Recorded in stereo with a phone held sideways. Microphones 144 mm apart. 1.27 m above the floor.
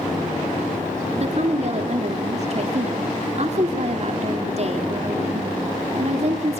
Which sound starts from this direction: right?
A woman speaking, at 1.1 s.